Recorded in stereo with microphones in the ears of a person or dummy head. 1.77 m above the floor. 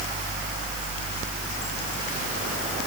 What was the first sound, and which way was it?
Only background noise.